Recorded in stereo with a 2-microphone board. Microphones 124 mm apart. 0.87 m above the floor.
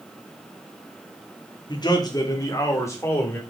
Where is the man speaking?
35° left (ahead or behind), 1.8 m; by 3.4 s 20° left (ahead or behind), 2.5 m.